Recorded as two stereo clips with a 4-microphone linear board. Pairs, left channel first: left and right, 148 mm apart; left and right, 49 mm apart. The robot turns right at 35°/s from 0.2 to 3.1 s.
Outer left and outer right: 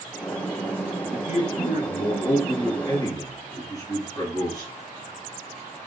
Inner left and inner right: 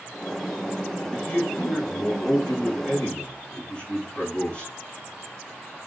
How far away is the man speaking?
About 2.0 m.